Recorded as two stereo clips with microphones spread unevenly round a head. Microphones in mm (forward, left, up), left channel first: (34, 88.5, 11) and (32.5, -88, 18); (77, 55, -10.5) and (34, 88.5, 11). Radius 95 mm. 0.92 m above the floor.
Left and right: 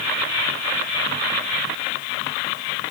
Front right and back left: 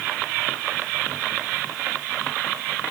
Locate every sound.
Only background noise.